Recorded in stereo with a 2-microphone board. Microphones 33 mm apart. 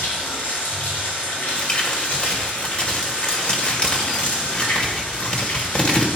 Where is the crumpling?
40° left (ahead or behind), 1.6 m.